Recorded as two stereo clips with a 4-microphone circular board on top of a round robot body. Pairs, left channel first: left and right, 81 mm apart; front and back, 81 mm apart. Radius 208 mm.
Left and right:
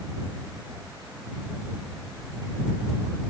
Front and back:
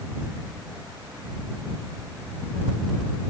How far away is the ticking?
No ticking in this recording.